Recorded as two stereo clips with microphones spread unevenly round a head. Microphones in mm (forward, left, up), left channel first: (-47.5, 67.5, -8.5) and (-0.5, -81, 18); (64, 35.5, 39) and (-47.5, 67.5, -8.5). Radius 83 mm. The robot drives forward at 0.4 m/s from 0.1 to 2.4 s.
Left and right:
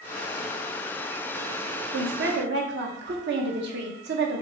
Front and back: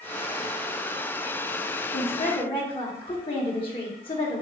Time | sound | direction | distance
1.9 | a woman speaking | 70° right | 0.8 m